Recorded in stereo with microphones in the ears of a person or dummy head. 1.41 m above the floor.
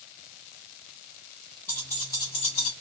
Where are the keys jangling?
10° left (ahead or behind), 1.9 m; by 2.7 s 55° left (ahead or behind), 0.6 m.